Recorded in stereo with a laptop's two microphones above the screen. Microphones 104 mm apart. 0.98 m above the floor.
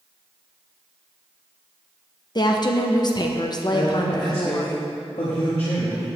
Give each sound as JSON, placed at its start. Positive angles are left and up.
{"t": 2.4, "sound": "a woman speaking", "side_deg": 45, "distance_m": 0.6}
{"t": 3.7, "sound": "a man speaking", "side_deg": 65, "distance_m": 1.2}